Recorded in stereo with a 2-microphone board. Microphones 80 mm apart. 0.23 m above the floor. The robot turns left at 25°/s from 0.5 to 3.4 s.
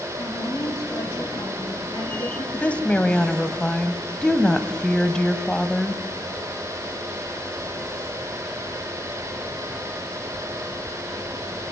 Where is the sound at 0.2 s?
135° left, 4 m; by 2.4 s 90° left, 4 m.